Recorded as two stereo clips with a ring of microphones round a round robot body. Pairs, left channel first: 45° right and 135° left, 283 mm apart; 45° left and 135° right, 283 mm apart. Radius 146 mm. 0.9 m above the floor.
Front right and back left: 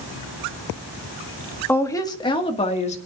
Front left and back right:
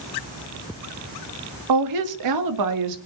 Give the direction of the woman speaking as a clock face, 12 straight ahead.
4 o'clock.